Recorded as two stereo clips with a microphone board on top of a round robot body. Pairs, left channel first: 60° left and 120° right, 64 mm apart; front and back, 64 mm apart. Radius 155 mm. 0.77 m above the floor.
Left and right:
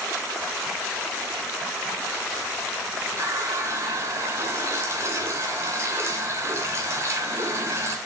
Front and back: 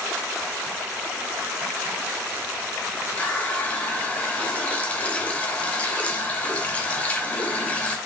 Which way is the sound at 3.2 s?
70° right.